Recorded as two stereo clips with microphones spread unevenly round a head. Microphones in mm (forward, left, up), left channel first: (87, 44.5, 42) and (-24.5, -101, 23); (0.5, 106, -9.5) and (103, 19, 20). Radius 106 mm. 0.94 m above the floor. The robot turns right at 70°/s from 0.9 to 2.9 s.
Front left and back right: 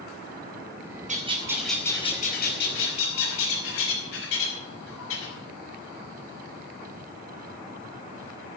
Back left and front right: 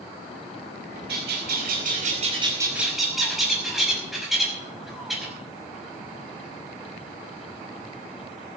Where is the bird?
80° right, 5.5 m; by 5.3 s 50° left, 5.5 m.